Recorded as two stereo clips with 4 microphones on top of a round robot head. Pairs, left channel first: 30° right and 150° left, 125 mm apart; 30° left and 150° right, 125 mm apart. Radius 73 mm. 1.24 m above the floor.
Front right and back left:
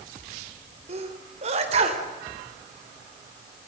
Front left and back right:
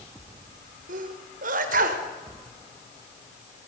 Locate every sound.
0.9 s a sneeze: 170° right, 4 m